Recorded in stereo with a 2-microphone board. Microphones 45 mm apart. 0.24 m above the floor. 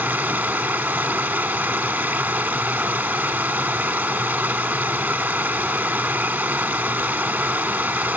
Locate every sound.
0.0 s running water: 35° right (ahead or behind), 1.0 m